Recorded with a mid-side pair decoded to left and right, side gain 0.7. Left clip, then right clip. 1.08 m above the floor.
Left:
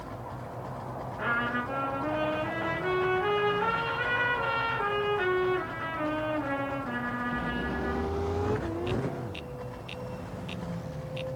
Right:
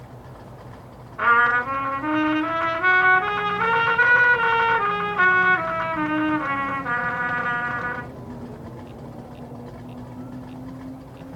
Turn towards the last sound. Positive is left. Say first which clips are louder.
# right 13 dB
turn(degrees=-55)